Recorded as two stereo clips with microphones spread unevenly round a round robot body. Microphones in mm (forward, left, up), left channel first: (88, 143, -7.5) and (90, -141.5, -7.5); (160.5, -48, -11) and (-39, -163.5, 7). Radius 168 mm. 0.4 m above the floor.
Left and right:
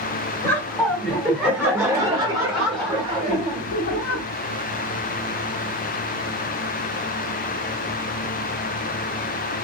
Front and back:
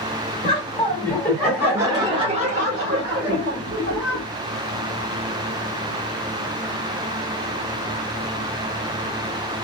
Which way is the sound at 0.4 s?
15° left.